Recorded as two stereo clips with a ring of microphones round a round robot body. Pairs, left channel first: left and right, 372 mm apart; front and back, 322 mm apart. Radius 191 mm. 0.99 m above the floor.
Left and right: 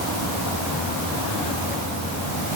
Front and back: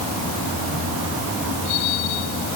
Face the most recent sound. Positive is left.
No sound to turn to.